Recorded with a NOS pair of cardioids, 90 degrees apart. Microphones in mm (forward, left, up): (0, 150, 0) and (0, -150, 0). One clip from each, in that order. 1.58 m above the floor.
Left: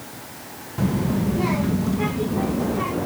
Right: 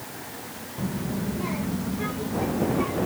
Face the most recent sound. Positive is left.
turn(degrees=40)